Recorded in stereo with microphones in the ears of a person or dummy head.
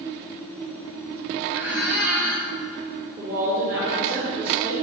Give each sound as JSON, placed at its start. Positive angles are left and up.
{"t": 1.5, "sound": "a squeak", "side_deg": -5, "distance_m": 1.1}
{"t": 3.2, "sound": "a woman speaking", "side_deg": -20, "distance_m": 1.1}